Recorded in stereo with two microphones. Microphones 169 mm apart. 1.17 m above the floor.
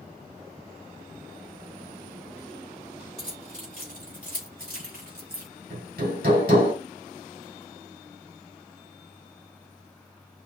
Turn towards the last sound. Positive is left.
turn(degrees=-80)